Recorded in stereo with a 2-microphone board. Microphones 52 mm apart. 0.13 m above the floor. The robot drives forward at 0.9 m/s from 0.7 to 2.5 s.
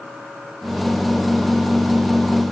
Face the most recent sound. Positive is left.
No sound to turn to.